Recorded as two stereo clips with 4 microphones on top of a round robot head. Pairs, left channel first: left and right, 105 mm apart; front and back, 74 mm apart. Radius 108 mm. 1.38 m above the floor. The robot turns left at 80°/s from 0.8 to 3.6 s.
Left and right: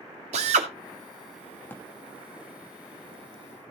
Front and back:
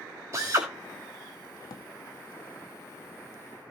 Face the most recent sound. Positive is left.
turn(degrees=-130)